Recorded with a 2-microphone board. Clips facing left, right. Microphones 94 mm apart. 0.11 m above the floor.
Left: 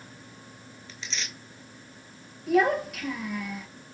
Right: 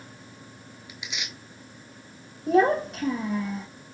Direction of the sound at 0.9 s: 15° right (ahead or behind).